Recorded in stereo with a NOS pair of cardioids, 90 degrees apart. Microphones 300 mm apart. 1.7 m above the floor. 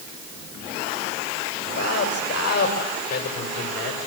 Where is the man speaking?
60° left, 9 m.